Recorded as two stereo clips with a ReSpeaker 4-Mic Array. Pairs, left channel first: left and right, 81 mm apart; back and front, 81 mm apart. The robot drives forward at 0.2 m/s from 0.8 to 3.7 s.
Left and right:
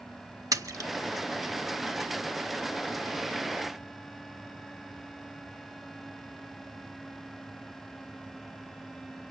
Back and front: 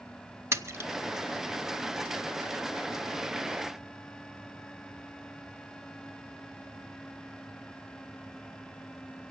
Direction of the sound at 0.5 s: 55° right.